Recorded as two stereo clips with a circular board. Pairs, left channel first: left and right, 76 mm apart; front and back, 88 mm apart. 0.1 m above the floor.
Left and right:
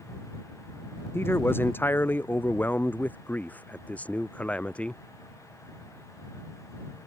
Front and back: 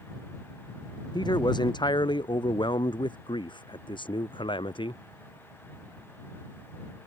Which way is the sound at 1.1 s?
30° left.